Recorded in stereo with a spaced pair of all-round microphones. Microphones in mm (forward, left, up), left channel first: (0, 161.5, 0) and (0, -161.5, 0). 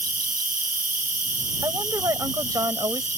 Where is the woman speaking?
10° right (ahead or behind).